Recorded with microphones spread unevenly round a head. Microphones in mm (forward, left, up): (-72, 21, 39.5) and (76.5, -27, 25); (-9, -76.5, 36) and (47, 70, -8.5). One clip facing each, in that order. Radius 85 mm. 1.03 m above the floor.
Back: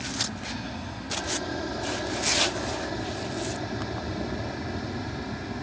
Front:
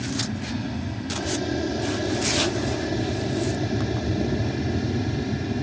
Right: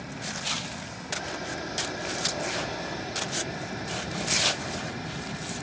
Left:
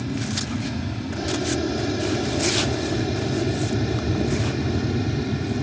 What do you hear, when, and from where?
0.0 s an aircraft: 45° left; by 5.6 s 40° left